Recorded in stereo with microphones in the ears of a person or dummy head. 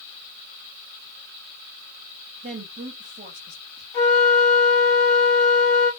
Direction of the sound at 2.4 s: 35° right (ahead or behind).